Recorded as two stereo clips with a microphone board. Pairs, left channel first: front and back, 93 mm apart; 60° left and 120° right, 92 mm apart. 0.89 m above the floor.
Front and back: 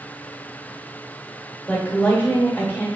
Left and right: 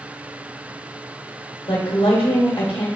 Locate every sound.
1.7 s a woman speaking: 70° left, 1.1 m